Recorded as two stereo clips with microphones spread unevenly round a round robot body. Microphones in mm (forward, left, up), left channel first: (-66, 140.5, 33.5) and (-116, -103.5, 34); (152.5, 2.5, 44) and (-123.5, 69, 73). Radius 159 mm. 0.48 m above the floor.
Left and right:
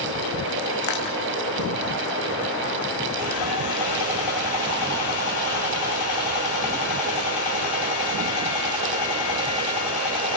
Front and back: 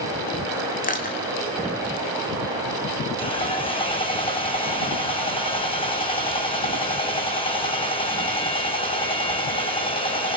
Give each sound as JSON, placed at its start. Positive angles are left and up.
{"t": 0.8, "sound": "crushing", "azimuth_deg": 50, "distance_m": 6.0}
{"t": 3.2, "sound": "sawing", "azimuth_deg": 60, "distance_m": 9.5}